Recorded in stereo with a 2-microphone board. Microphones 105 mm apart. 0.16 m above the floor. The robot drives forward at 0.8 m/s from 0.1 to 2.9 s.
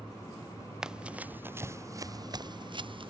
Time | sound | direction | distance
0.8 | running footsteps | 5° right (ahead or behind) | ?